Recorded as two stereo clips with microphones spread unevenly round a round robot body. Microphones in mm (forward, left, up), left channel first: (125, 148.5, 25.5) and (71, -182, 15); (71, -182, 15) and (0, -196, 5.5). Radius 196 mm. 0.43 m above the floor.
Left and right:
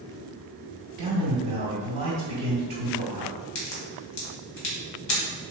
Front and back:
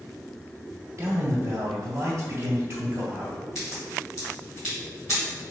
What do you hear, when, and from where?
1.0 s a man speaking: 130° right, 1.9 m
3.5 s a crack: 110° left, 1.4 m